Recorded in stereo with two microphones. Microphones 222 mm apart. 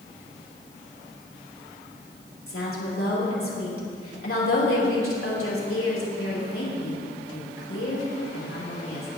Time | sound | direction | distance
2.5 | a woman speaking | 70° left (ahead or behind) | 3.5 m